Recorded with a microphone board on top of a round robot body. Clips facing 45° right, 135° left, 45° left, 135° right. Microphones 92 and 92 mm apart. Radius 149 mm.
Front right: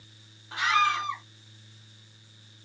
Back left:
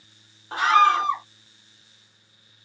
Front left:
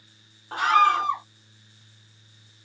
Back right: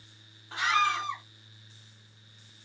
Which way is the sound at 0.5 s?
90° left.